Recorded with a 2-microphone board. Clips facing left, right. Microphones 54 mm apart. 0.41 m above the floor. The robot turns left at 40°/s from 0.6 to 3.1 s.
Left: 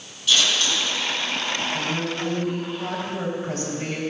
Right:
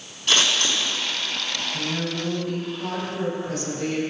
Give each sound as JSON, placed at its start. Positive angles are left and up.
{"t": 0.3, "sound": "scissors", "side_deg": -50, "distance_m": 3.5}
{"t": 1.7, "sound": "a woman speaking", "azimuth_deg": -170, "distance_m": 3.0}